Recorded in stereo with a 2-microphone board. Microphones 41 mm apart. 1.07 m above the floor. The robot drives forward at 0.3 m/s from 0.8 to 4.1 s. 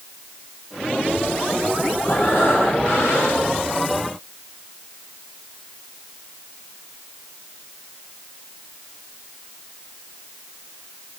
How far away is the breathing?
About 9.5 m.